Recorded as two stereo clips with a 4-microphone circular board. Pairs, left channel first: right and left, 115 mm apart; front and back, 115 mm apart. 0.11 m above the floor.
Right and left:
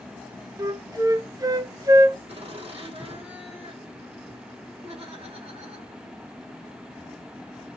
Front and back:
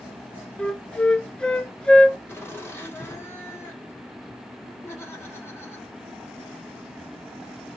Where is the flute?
75° left, 0.6 m.